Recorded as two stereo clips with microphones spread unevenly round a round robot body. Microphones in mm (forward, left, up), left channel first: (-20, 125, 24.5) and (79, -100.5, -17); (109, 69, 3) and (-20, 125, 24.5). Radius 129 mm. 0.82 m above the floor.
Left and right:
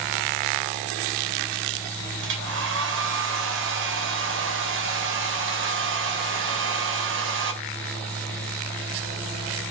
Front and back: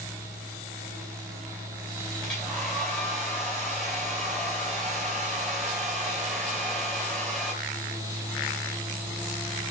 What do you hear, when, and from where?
2.2 s a hair dryer: 110° right, 2.5 m